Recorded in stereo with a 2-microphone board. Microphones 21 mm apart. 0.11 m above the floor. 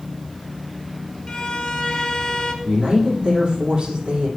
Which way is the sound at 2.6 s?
50° right (ahead or behind).